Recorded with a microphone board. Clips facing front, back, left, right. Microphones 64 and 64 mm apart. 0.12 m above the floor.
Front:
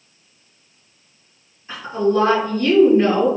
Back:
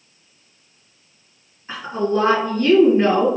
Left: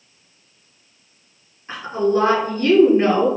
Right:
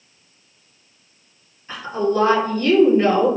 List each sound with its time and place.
1.7 s a woman speaking: 130° left, 1.9 m